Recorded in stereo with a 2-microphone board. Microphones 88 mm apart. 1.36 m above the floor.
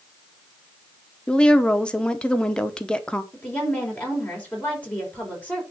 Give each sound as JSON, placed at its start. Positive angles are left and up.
{"t": 1.3, "sound": "a woman speaking", "side_deg": 10, "distance_m": 1.0}
{"t": 3.3, "sound": "a woman speaking", "side_deg": 20, "distance_m": 5.0}